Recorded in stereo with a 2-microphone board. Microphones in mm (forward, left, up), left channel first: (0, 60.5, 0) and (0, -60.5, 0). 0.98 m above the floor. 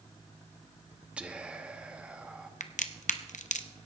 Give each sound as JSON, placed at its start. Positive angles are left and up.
{"t": 1.2, "sound": "whispering", "side_deg": -10, "distance_m": 1.1}
{"t": 2.6, "sound": "a crack", "side_deg": 80, "distance_m": 0.6}